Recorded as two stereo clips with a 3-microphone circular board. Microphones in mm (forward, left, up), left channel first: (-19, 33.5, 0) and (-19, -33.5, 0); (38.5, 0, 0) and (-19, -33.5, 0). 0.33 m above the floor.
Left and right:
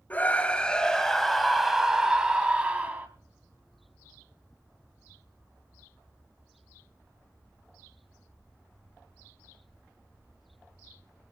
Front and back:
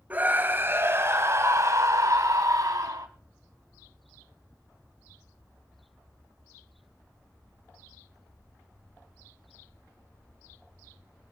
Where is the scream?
150° left, 2 m; by 3.1 s 155° right, 2.5 m.